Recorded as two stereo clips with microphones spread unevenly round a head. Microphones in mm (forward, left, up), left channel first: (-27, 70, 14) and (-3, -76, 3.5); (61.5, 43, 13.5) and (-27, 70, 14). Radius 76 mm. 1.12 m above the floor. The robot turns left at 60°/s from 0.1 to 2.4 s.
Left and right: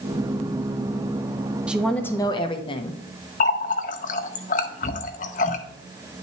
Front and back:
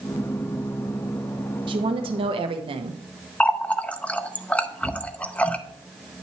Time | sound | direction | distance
1.7 | a woman speaking | 160° right | 0.9 m
3.4 | a running tap | 60° left | 0.6 m